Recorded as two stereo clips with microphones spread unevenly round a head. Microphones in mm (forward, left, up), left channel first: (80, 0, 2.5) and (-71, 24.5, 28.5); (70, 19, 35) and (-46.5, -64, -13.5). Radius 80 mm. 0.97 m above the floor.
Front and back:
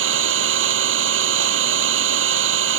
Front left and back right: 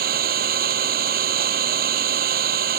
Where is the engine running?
Straight behind.